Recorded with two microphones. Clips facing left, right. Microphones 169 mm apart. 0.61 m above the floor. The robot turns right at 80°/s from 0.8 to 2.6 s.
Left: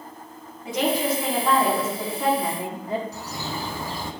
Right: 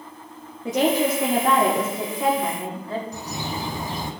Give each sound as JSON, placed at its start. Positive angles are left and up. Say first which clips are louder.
{"t": 0.7, "sound": "a woman speaking", "louder": "right 3 dB", "azimuth_deg": -125, "distance_m": 1.0}
{"t": 3.1, "sound": "a bird", "louder": "right 2 dB", "side_deg": -20, "distance_m": 0.7}